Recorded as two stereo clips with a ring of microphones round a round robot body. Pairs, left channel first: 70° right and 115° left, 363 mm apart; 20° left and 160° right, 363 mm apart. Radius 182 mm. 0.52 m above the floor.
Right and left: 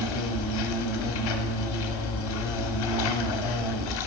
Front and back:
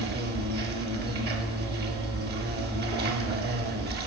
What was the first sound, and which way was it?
An insect, 95° right.